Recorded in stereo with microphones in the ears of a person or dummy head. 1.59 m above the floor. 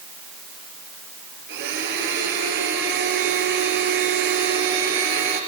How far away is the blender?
About 5.5 m.